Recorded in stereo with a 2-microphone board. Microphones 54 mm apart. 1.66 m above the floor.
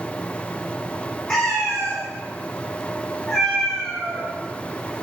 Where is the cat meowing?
15° left (ahead or behind), 1.0 m.